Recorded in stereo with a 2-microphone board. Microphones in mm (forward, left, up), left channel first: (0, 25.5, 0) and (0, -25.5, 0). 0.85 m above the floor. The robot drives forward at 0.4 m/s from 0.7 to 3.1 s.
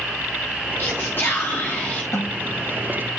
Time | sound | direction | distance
0.8 | whispering | 55° left (ahead or behind) | 1.0 m
2.1 | a snare drum | 80° left | 7.5 m